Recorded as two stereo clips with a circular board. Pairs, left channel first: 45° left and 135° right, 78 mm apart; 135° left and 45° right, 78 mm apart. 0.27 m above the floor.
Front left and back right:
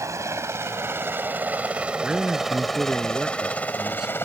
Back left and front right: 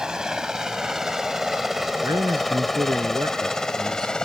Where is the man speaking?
55° right.